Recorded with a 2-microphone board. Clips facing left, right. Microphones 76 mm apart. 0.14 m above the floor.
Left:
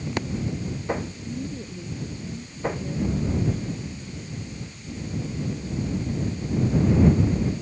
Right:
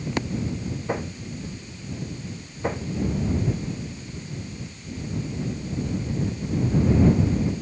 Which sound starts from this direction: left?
A woman speaking, at 1.2 s.